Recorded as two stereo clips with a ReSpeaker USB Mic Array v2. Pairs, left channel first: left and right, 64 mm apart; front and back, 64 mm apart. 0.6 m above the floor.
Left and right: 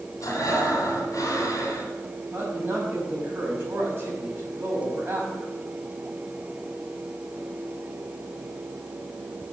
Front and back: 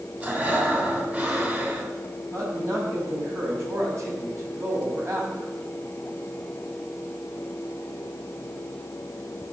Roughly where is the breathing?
Behind left.